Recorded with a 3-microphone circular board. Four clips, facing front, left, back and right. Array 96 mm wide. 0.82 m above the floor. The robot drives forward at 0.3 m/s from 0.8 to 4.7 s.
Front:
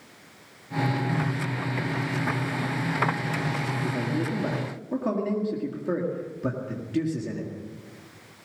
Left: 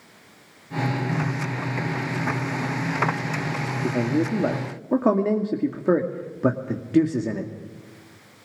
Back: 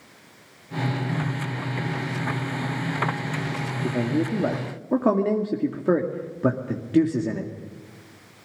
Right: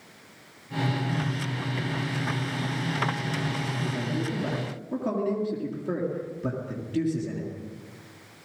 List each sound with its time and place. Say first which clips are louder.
3.8 s a man speaking: left 10 dB, back 7 dB; 115° left, 1.9 m; by 7.5 s 120° left, 2 m